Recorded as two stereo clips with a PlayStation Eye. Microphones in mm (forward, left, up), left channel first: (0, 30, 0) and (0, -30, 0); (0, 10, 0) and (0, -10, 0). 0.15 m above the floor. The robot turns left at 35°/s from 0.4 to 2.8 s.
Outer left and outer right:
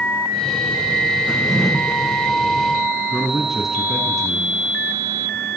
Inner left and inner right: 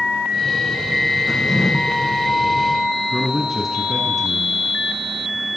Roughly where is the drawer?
Centre.